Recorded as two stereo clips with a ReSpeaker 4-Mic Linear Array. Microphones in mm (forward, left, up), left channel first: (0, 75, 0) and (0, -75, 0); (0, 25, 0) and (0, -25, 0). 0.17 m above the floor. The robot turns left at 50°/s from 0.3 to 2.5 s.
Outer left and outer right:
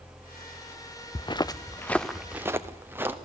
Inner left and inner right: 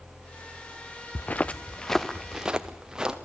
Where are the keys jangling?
I don't hear keys jangling.